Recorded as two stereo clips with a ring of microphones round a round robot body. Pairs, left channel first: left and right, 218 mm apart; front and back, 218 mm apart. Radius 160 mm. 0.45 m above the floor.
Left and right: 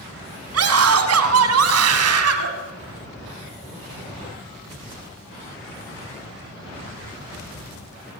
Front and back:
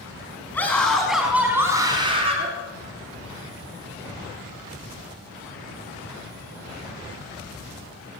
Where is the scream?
85° right, 4 m; by 2.5 s 110° right, 3.5 m.